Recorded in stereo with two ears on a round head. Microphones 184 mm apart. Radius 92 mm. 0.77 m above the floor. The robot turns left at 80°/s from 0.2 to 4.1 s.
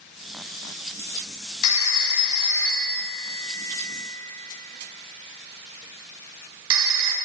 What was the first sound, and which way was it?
A phone ringing, 85° left.